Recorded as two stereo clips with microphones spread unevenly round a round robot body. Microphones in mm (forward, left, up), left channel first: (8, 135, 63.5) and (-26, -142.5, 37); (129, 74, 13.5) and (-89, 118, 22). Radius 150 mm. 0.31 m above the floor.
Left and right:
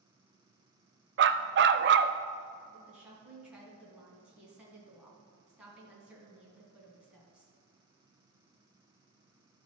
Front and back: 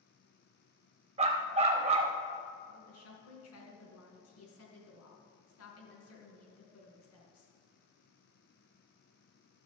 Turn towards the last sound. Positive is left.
turn(degrees=-15)